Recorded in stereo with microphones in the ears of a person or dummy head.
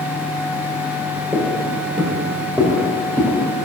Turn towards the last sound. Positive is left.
turn(degrees=0)  # may be behind; listen again after turning